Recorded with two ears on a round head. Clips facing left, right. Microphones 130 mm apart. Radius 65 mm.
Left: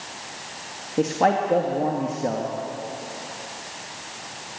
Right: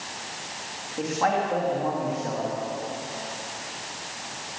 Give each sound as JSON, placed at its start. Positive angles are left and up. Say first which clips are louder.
{"t": 1.0, "sound": "a man speaking", "louder": "left 4 dB", "side_deg": 50, "distance_m": 2.0}